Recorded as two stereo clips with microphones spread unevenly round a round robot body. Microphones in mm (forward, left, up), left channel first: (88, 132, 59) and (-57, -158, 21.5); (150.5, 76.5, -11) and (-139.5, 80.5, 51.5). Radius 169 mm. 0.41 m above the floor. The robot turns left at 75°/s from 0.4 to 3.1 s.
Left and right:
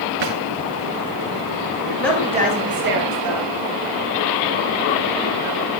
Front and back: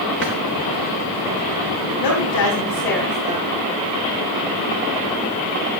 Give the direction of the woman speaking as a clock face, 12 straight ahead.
1 o'clock.